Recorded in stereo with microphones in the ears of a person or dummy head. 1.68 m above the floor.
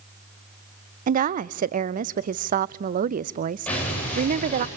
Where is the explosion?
10° left (ahead or behind), 10 m.